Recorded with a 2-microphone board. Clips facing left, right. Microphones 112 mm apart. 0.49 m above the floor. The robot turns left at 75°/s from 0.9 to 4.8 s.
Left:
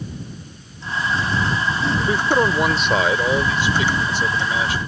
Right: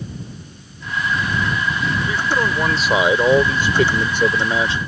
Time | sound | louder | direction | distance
2.0 | a man speaking | left 4 dB | 60° left | ?